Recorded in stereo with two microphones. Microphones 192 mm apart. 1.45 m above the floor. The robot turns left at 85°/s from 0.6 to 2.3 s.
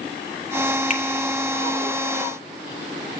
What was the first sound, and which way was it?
A finger snap, 40° left (ahead or behind).